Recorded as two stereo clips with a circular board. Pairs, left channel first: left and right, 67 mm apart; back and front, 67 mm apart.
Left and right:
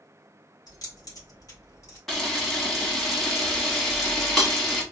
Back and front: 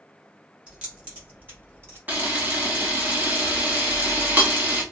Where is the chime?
No chime in this recording.